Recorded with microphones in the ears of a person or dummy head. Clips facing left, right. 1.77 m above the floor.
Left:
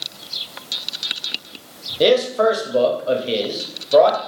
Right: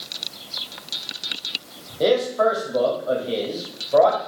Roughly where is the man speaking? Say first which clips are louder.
Left 3 dB; left.